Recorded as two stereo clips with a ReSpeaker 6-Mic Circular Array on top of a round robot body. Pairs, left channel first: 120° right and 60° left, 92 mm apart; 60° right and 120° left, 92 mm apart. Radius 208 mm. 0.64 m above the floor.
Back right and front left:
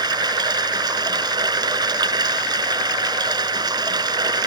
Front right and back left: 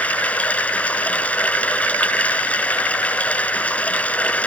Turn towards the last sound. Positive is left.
turn(degrees=15)